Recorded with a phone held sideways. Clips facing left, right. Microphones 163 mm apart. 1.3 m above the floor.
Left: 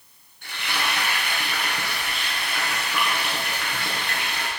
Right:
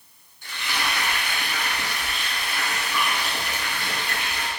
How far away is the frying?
About 2.5 m.